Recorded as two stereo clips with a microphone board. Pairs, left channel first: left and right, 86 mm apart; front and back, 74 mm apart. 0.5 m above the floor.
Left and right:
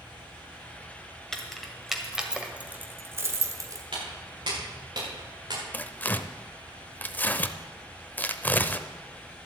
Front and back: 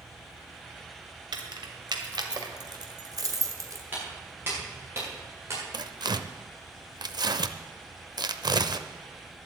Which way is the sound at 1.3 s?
175° left.